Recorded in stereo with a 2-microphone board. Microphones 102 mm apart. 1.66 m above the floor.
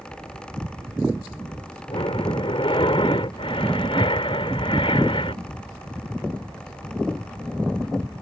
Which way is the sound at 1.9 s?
65° left (ahead or behind).